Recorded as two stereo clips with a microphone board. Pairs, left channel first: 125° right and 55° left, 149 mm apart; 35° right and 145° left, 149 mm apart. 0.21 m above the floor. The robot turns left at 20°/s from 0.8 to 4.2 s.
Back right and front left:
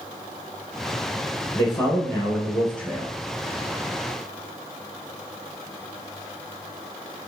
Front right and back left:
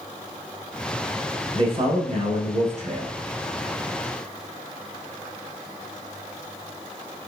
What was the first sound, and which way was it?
A man speaking, straight behind.